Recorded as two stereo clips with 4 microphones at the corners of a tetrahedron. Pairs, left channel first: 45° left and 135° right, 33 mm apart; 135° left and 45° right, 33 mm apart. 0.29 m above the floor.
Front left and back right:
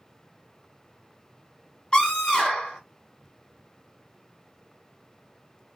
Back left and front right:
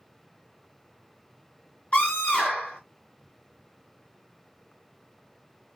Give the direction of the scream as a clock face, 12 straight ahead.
9 o'clock.